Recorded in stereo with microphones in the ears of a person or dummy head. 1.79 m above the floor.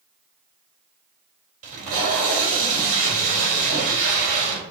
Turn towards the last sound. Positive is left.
turn(degrees=-40)  # may be behind; listen again after turning